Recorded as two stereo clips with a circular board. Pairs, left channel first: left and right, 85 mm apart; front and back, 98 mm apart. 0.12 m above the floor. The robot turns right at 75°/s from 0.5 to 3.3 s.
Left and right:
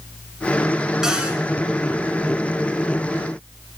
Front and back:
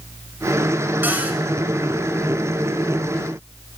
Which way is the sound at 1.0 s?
165° right.